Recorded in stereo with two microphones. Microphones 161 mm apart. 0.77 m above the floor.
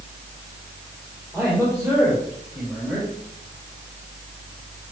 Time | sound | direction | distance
1.3 | a man speaking | 15° right (ahead or behind) | 3.5 m